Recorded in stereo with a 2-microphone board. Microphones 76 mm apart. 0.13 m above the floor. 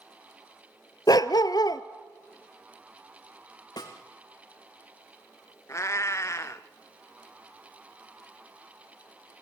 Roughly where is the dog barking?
Left.